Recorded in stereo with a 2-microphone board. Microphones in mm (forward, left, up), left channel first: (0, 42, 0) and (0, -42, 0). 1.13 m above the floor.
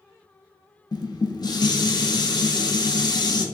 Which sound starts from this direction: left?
Dishes clattering, at 0.9 s.